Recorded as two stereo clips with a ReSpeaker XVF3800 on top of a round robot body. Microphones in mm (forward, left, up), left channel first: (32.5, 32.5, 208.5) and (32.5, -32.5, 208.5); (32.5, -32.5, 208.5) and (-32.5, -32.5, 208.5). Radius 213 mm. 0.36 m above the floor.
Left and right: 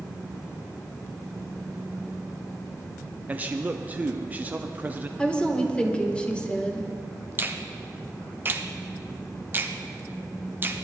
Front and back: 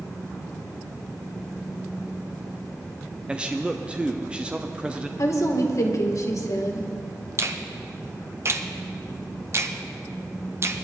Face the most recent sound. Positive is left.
turn(degrees=-140)